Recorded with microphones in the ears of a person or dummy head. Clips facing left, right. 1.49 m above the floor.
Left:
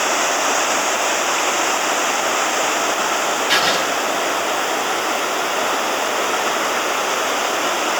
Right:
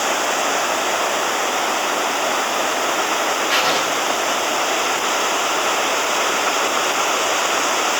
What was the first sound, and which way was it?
Writing, 60° left (ahead or behind).